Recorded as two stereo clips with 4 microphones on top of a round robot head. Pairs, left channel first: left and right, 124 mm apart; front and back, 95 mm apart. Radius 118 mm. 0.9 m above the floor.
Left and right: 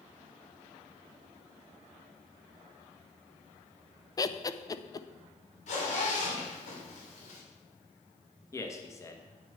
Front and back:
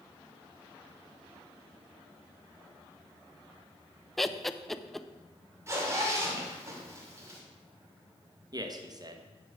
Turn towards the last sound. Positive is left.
turn(degrees=150)